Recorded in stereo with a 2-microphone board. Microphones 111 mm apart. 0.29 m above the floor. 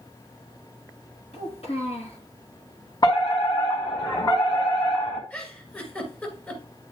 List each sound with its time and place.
1.3 s a child speaking: 70° left (ahead or behind), 3.5 m
3.0 s a fire alarm: 40° left (ahead or behind), 4 m
5.3 s a giggle: 15° left (ahead or behind), 2.5 m